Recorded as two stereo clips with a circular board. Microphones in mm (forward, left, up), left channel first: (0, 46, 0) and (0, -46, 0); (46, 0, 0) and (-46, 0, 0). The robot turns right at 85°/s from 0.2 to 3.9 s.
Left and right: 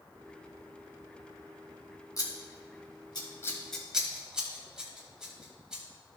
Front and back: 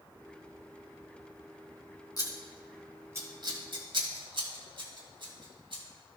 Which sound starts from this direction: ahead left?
Scissors, at 2.2 s.